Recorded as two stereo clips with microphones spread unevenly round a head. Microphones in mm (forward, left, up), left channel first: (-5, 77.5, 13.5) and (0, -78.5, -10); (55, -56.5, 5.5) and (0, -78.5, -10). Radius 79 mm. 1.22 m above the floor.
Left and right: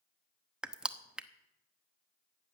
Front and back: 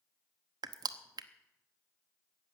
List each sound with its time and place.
0.6 s crushing: straight behind, 0.8 m